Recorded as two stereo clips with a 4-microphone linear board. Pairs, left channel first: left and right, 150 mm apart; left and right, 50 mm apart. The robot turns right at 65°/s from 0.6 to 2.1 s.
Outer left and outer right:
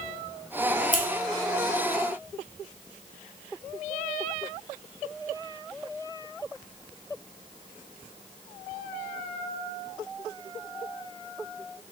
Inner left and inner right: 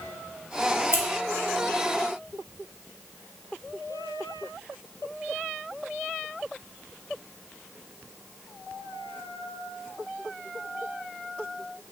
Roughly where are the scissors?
Left.